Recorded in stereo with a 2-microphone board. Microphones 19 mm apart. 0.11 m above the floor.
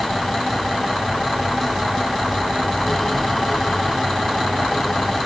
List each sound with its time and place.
Only background noise.